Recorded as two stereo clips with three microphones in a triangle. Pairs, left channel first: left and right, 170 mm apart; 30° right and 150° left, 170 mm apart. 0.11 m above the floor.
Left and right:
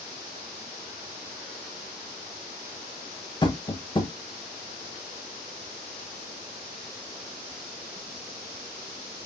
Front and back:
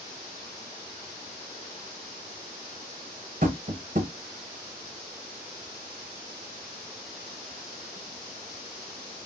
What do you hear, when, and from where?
3.4 s tapping: 140° left, 0.9 m